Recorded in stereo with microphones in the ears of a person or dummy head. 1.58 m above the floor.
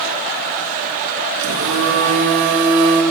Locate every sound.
1.4 s a phone buzzing: 65° right (ahead or behind), 1.7 m